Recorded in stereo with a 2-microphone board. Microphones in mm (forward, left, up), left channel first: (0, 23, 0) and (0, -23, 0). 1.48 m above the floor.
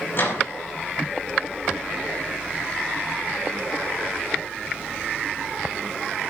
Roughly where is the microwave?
Left.